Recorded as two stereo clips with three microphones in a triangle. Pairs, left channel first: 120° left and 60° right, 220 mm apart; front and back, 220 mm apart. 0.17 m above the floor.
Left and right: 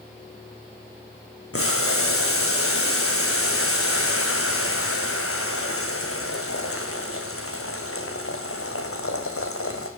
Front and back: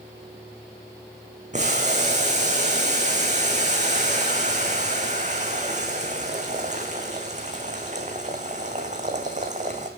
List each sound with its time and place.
1.5 s boiling: 125° left, 2.5 m